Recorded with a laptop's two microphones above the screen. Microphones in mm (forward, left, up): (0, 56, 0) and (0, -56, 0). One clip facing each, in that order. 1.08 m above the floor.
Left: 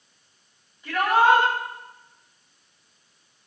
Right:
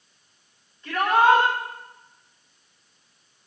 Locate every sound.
0.8 s a shout: 10° left (ahead or behind), 7 m